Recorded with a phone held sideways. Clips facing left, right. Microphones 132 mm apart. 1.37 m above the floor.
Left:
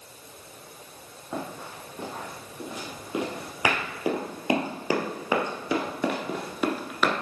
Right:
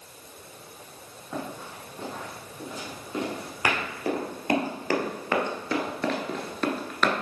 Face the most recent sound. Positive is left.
turn(degrees=5)  # may be behind; listen again after turning